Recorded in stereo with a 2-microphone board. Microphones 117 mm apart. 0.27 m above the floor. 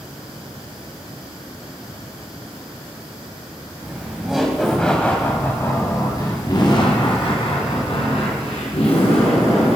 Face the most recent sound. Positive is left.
turn(degrees=65)  # may be behind; listen again after turning